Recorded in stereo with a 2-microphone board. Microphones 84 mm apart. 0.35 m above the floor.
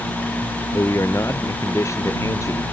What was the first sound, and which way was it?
A man speaking, 35° left (ahead or behind).